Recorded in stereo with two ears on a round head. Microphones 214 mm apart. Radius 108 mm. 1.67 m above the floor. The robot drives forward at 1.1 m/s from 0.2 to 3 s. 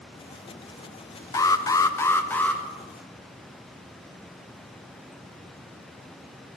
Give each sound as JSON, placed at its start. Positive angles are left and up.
{"t": 1.3, "sound": "an alarm", "side_deg": 15, "distance_m": 0.7}